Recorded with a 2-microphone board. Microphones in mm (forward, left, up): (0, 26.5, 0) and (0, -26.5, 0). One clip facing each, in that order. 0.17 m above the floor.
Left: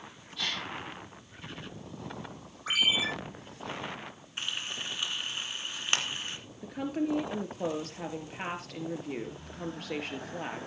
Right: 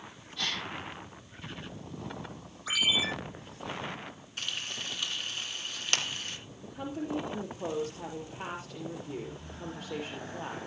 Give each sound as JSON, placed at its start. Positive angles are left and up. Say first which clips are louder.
{"t": 0.4, "sound": "a gasp", "louder": "even", "side_deg": 0, "distance_m": 6.0}
{"t": 2.7, "sound": "a ringtone", "louder": "left 1 dB", "side_deg": 45, "distance_m": 4.0}
{"t": 4.4, "sound": "frying", "louder": "left 1 dB", "side_deg": 20, "distance_m": 2.5}
{"t": 6.6, "sound": "a woman speaking", "louder": "left 5 dB", "side_deg": 65, "distance_m": 3.5}